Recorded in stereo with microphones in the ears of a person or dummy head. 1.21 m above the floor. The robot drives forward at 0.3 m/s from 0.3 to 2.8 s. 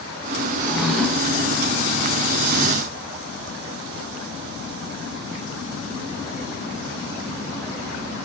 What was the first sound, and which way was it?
A drawer, 5° right (ahead or behind).